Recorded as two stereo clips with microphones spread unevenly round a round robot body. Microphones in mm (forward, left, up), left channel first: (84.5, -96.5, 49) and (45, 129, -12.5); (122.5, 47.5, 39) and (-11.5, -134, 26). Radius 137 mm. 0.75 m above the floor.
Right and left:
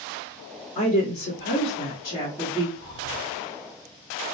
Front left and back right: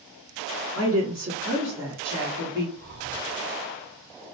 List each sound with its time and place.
0.8 s a woman speaking: 115° right, 1.7 m; by 2.7 s 160° right, 1.2 m
2.8 s breathing: 165° right, 1.3 m